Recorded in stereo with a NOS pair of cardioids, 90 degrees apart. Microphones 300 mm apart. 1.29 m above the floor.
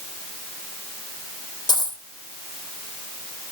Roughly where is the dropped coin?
Ahead.